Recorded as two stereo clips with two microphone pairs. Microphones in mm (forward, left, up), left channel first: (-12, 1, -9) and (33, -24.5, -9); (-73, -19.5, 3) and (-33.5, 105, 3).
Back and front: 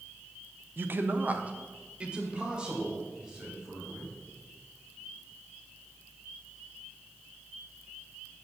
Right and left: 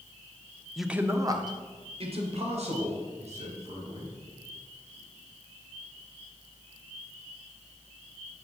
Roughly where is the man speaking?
Ahead.